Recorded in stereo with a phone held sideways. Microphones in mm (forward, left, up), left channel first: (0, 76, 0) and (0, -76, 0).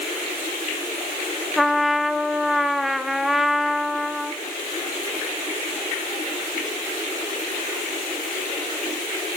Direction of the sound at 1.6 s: Centre (ahead or behind).